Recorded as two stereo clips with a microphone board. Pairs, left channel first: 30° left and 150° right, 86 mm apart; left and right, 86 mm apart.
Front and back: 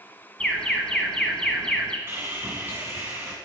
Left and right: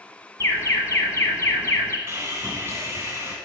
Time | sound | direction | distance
0.4 | an alarm | 105° left | 0.9 m
2.1 | sawing | 110° right | 1.8 m